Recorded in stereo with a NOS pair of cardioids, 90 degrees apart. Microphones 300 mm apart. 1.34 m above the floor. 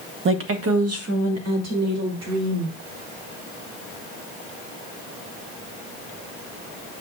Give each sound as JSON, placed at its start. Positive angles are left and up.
{"t": 0.2, "sound": "a woman speaking", "azimuth_deg": -40, "distance_m": 0.9}